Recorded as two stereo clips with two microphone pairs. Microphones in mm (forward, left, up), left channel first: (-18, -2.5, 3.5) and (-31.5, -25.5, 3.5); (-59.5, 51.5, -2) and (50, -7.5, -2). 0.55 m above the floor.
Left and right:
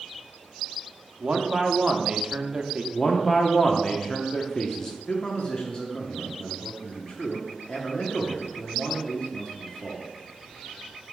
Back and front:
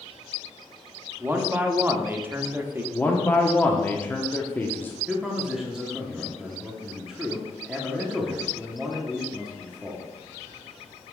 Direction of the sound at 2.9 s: 100° left.